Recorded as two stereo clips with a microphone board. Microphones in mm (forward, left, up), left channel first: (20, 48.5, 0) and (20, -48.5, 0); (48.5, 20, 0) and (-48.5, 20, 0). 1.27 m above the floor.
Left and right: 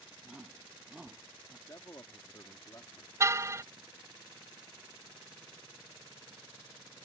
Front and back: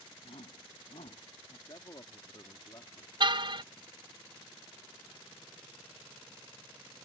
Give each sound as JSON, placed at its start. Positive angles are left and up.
{"t": 0.2, "sound": "a shout", "azimuth_deg": -10}
{"t": 1.7, "sound": "a man speaking", "azimuth_deg": 40}
{"t": 3.2, "sound": "a car horn", "azimuth_deg": -150}